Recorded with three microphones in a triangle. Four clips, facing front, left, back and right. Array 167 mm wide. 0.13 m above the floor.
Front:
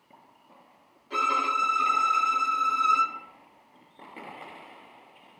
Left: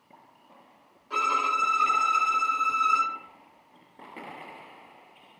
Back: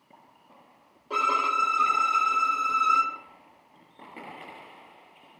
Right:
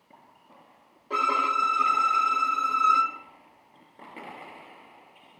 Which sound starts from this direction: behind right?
A violin, at 1.1 s.